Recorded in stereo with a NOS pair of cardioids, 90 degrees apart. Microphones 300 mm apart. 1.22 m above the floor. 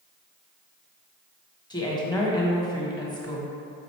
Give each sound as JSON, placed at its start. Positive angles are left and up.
{"t": 1.7, "sound": "a woman speaking", "azimuth_deg": 15, "distance_m": 1.1}